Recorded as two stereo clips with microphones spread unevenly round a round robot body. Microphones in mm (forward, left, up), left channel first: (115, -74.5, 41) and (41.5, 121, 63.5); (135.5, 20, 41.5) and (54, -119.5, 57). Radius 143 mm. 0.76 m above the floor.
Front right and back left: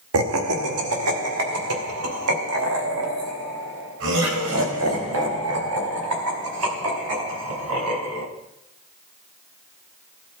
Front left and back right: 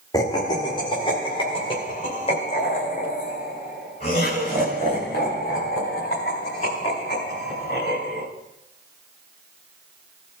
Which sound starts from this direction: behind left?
Laughter, at 0.1 s.